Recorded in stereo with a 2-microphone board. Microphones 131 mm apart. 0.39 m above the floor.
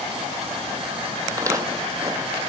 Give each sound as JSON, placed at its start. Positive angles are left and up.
{"t": 1.3, "sound": "footsteps", "side_deg": -25, "distance_m": 0.6}